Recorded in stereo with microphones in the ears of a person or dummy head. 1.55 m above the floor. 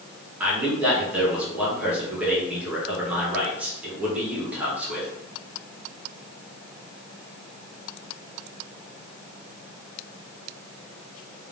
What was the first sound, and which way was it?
A man speaking, 10° right (ahead or behind).